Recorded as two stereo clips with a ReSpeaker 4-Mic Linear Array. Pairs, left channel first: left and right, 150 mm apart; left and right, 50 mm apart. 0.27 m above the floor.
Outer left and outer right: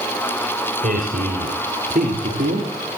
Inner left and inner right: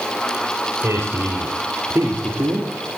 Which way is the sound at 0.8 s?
65° right (ahead or behind).